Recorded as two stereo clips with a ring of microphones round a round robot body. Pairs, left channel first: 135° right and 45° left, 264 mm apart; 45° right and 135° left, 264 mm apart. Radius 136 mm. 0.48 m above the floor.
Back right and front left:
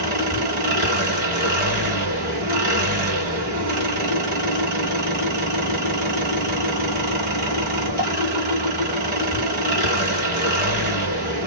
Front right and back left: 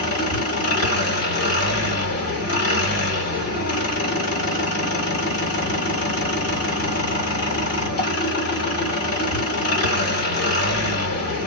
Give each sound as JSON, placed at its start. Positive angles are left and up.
{"t": 0.0, "sound": "an engine running", "azimuth_deg": -10, "distance_m": 2.0}